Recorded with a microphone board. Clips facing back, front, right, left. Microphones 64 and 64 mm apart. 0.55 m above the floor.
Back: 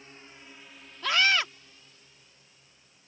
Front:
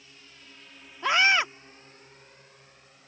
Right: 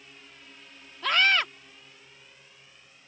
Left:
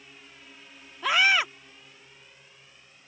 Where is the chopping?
No chopping in this recording.